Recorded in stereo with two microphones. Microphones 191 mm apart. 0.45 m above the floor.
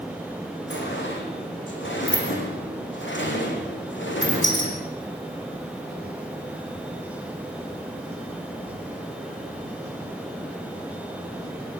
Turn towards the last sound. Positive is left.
turn(degrees=75)  # may be behind; listen again after turning